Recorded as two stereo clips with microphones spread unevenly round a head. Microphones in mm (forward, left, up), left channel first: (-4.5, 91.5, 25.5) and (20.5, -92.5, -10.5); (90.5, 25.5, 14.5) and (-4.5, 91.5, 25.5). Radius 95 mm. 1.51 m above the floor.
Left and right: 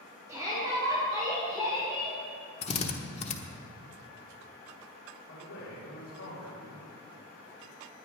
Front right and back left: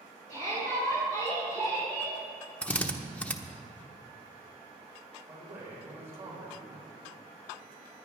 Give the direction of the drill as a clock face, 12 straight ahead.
10 o'clock.